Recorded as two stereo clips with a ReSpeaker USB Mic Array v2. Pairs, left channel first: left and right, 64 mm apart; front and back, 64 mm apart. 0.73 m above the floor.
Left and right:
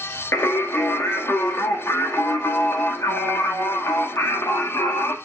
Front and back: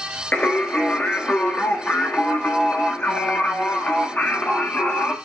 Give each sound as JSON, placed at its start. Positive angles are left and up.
{"t": 0.3, "sound": "singing", "azimuth_deg": 55, "distance_m": 1.1}